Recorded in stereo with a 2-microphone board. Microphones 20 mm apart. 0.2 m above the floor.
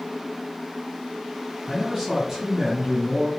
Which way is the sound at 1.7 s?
25° right (ahead or behind).